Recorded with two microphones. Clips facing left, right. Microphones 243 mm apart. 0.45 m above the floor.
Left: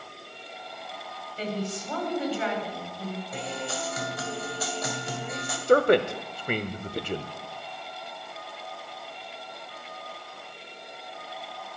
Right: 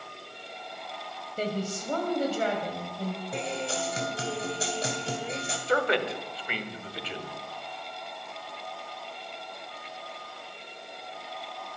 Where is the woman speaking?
50° right (ahead or behind), 3 m.